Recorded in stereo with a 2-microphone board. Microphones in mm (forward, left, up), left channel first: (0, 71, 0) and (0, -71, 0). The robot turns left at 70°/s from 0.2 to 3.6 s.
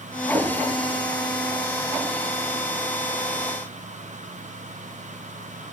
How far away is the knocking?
About 2.5 m.